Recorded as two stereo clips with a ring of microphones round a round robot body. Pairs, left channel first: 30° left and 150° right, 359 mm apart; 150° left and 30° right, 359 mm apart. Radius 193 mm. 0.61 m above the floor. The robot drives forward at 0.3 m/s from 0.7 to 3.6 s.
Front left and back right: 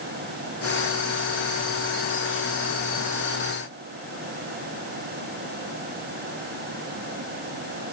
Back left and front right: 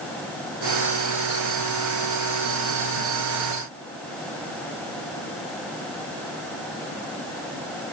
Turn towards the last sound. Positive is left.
No sound to turn to.